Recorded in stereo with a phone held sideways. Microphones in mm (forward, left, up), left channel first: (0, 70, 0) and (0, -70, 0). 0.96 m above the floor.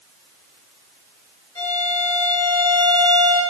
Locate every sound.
1.6 s a violin: 30° left (ahead or behind), 1.7 m